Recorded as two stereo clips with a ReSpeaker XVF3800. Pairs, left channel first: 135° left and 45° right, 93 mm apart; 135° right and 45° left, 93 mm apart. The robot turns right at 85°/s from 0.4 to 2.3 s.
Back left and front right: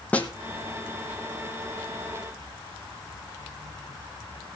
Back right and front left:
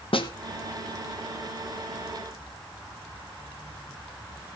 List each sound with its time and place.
0.1 s a snare drum: 150° right, 1.1 m